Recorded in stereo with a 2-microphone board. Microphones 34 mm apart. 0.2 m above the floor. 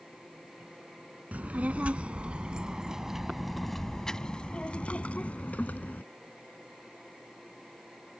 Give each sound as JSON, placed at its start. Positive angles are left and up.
{"t": 1.3, "sound": "a child speaking", "side_deg": -50}